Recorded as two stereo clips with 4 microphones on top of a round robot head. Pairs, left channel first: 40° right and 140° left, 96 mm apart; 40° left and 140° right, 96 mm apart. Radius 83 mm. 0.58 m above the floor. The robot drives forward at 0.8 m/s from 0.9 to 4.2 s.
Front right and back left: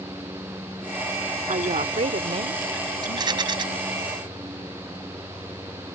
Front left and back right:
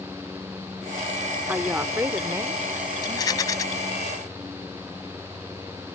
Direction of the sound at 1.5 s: 145° left.